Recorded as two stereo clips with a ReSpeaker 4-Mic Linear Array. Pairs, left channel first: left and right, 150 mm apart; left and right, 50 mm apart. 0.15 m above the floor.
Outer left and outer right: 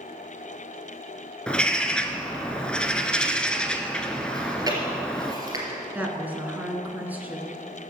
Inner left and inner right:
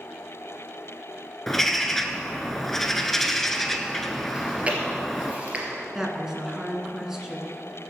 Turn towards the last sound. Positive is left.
turn(degrees=-10)  # may be behind; listen again after turning